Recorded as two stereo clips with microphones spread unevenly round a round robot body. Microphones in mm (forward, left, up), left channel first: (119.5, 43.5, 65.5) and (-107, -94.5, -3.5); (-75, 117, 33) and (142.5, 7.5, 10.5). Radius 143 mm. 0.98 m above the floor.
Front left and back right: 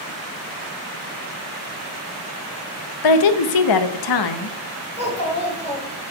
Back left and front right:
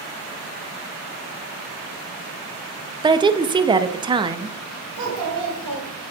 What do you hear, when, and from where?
3.0 s a woman speaking: 45° left, 0.8 m
5.0 s a child speaking: 40° right, 4 m